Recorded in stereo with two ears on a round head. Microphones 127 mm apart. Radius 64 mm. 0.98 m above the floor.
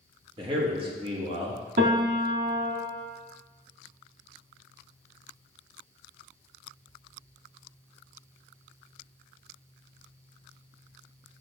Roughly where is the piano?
Right.